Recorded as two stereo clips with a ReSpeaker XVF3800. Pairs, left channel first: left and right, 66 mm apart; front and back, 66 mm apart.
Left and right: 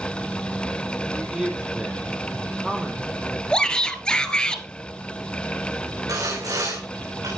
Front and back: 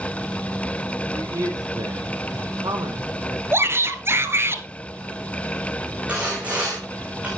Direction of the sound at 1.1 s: 170° right.